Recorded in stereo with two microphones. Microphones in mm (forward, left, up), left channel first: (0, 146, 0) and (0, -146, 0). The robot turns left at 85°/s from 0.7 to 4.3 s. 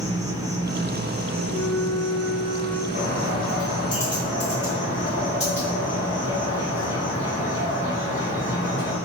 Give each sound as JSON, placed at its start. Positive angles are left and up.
{"t": 0.0, "sound": "an insect", "azimuth_deg": -10, "distance_m": 0.8}
{"t": 1.5, "sound": "a flute", "azimuth_deg": 115, "distance_m": 0.5}
{"t": 2.9, "sound": "a bird", "azimuth_deg": 140, "distance_m": 1.9}